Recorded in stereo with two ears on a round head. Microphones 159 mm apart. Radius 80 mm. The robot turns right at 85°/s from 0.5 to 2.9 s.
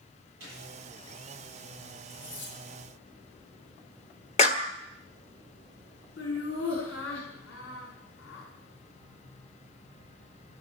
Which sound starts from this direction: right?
A gunshot, at 0.4 s.